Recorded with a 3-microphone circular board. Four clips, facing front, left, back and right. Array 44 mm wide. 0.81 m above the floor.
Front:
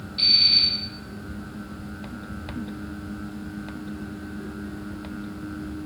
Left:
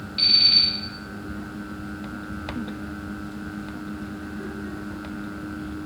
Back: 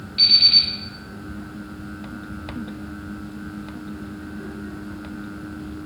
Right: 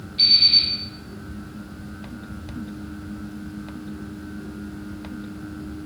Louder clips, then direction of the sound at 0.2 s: Right 1 dB, back 3 dB; 145° left.